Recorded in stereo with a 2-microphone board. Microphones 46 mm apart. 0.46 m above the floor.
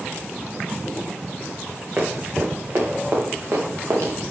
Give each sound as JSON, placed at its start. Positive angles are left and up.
{"t": 2.0, "sound": "running footsteps", "side_deg": -40, "distance_m": 5.0}